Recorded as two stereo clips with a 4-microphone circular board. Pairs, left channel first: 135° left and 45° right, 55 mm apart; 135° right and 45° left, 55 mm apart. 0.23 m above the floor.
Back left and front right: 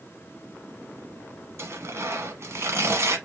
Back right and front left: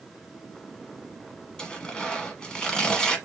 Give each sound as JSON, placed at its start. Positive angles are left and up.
{"t": 1.6, "sound": "tearing paper", "azimuth_deg": -60, "distance_m": 1.0}